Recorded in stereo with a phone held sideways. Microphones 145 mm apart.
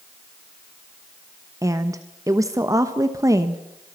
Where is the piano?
I don't hear a piano.